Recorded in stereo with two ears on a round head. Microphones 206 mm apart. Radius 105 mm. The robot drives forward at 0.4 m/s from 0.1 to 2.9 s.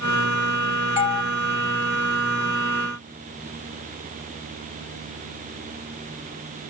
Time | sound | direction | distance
1.0 | a doorbell | 25° left (ahead or behind) | 2 m